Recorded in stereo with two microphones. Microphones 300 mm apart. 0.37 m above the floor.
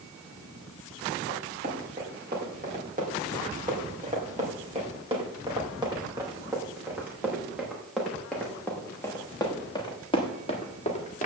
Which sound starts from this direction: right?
Running footsteps, at 1.3 s.